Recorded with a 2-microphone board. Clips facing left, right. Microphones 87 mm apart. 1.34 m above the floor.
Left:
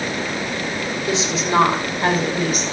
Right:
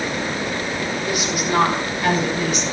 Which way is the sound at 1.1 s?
20° left (ahead or behind).